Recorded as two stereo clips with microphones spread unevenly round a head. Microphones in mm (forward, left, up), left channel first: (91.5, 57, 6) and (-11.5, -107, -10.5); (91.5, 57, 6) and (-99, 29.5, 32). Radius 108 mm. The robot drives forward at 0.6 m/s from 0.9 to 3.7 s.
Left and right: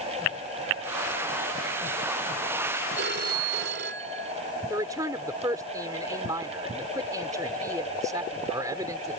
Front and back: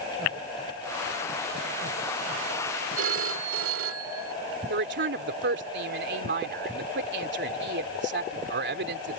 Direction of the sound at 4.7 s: 160° left.